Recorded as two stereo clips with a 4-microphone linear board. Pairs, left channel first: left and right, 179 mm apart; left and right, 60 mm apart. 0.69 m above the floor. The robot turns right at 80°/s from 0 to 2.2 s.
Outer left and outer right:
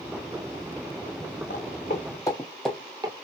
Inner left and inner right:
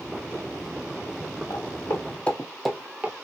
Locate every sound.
1.5 s footsteps: 70° left (ahead or behind), 1.9 m; by 3.1 s 30° right (ahead or behind), 0.8 m